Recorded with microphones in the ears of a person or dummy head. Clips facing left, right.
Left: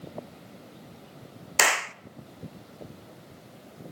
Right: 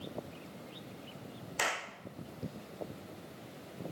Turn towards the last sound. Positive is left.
turn(degrees=75)  # may be behind; listen again after turning